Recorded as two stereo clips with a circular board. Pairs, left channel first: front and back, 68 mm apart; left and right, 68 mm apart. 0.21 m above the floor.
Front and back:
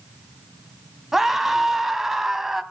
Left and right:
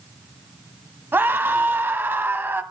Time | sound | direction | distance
1.1 | a scream | 100° right | 1.2 m